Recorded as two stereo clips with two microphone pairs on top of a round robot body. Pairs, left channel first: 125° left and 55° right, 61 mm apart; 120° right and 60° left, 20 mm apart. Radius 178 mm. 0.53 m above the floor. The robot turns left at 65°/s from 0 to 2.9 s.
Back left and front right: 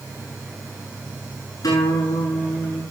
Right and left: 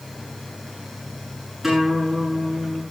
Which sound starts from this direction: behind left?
A guitar, at 1.6 s.